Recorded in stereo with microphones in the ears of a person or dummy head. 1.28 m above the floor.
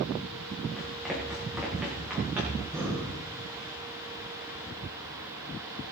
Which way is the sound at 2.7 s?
20° right (ahead or behind).